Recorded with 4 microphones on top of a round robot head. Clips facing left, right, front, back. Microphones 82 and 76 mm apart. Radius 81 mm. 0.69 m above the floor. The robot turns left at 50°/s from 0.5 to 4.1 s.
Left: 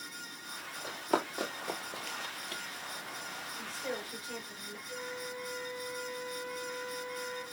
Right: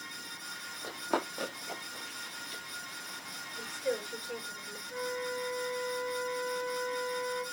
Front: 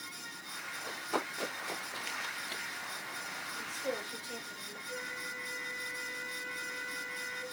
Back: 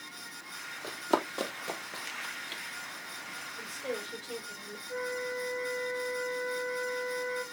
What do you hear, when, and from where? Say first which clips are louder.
0.8 s running footsteps: left 1 dB, back 7 dB; 155° right, 1.5 m; by 2.6 s 60° left, 1.2 m
3.6 s a woman speaking: right 6 dB, back 1 dB; 150° right, 4 m; by 4.8 s 175° right, 4 m
4.9 s a flute: right 6 dB, back 8 dB; 125° right, 3 m